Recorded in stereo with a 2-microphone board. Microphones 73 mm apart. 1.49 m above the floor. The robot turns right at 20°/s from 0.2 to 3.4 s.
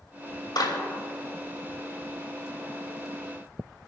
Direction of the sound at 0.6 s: 85° left.